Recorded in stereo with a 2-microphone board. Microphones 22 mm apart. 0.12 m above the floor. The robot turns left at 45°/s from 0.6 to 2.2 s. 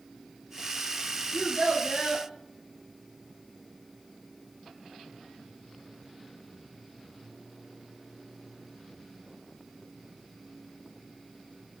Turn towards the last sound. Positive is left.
turn(degrees=-25)  # may be behind; listen again after turning